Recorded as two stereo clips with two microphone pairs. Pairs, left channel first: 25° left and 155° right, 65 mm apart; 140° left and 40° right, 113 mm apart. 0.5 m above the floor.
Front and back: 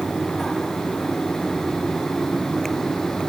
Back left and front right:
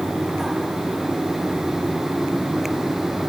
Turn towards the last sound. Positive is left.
No sound to turn to.